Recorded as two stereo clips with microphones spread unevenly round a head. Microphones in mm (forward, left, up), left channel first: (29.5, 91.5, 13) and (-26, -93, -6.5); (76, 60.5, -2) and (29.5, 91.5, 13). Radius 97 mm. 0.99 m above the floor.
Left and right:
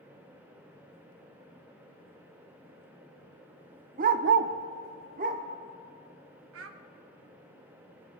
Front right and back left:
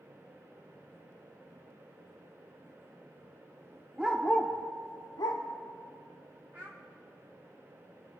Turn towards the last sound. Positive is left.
turn(degrees=-130)